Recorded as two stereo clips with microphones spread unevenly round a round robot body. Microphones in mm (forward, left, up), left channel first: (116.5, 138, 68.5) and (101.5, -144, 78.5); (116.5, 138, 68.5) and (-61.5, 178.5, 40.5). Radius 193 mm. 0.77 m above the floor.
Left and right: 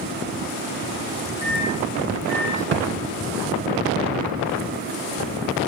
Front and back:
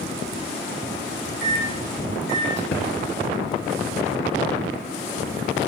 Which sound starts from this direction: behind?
A microwave, at 1.4 s.